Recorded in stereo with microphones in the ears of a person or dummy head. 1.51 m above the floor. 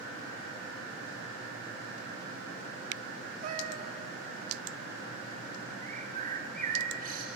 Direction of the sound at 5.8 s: 45° right (ahead or behind).